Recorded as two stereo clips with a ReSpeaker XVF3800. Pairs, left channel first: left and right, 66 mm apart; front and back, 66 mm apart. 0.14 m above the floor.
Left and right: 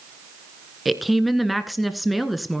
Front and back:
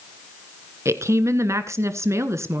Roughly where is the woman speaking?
Behind.